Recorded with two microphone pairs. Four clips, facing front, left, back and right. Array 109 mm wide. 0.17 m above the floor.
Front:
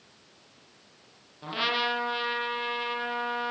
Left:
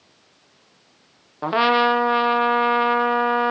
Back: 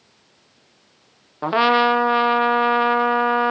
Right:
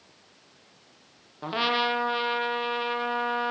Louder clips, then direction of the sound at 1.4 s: Left 9 dB, back 14 dB; 150° left.